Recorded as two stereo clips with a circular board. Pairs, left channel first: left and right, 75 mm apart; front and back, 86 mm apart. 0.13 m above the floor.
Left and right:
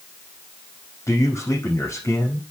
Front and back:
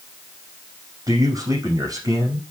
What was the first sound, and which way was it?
A man speaking, 135° left.